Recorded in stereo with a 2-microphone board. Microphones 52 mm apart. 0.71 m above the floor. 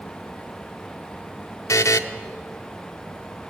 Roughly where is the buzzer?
Left.